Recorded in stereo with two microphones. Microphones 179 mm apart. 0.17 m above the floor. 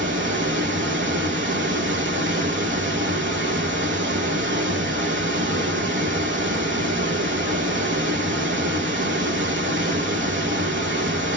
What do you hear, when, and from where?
0.0 s running water: 90° right, 1.1 m